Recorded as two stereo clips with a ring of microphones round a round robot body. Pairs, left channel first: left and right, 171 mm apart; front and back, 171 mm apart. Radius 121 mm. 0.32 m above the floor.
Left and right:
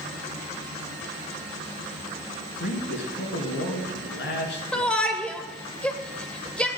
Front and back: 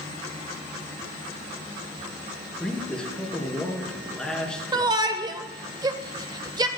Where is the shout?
165° left, 1.1 m.